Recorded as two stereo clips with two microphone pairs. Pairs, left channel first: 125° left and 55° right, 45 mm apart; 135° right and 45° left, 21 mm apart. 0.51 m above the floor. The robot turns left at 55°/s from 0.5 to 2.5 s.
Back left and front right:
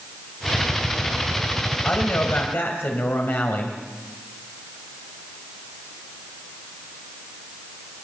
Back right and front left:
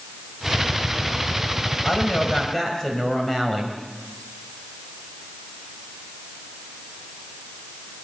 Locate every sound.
1.8 s a woman speaking: 170° right, 3 m; by 3.8 s 155° left, 3 m